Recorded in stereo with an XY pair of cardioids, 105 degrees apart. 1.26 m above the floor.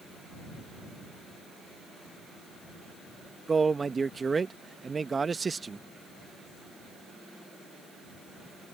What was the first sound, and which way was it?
A man speaking, 25° right.